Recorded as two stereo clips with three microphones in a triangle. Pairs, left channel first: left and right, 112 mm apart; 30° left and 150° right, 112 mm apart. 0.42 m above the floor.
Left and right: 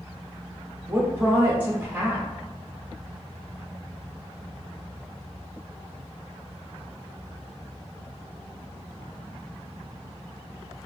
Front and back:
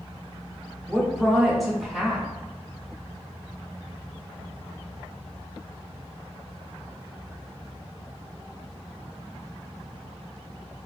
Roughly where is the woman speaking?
Ahead right.